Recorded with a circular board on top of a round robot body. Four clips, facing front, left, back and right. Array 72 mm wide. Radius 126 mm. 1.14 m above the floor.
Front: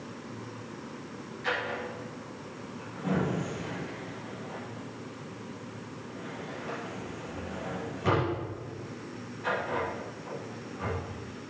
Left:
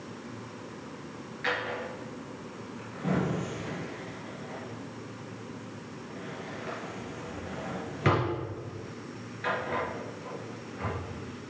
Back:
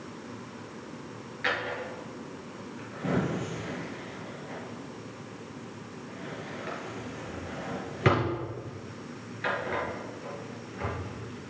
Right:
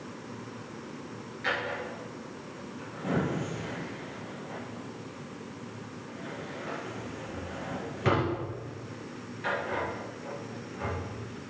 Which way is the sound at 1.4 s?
160° left.